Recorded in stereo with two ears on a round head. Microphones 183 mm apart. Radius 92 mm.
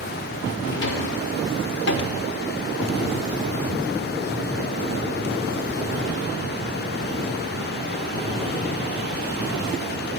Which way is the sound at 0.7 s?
55° left (ahead or behind).